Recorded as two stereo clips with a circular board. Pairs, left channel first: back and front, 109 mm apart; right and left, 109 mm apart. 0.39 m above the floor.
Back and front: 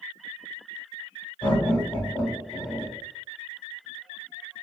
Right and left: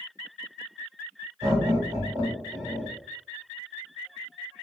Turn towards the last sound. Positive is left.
turn(degrees=110)